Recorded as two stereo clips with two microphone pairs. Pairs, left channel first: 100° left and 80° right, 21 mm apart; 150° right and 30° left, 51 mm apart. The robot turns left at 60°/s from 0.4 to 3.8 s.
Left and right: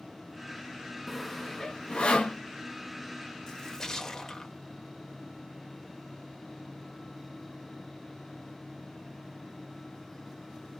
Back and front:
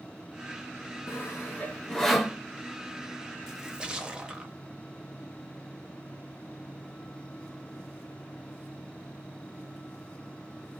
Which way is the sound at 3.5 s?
90° left.